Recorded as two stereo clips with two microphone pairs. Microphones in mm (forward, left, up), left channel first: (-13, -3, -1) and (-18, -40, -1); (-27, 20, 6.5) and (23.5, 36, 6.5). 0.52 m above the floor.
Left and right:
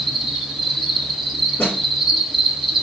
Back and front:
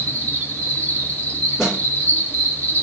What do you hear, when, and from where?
0.0 s an insect: 160° left, 1.8 m
1.6 s a snare drum: 95° left, 1.8 m